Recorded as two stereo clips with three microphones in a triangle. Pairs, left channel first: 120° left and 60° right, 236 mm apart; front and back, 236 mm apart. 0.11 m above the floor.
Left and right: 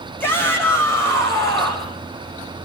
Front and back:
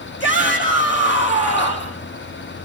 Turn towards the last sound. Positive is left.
turn(degrees=40)